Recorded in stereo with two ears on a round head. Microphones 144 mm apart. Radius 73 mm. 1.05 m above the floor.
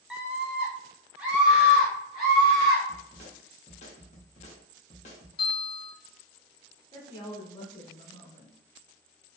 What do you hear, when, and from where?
0.1 s a scream: 5° right (ahead or behind), 0.6 m
2.9 s a snare drum: 45° left (ahead or behind), 0.8 m
5.4 s a bell: 30° left (ahead or behind), 1.2 m
6.9 s a woman speaking: 30° left (ahead or behind), 0.8 m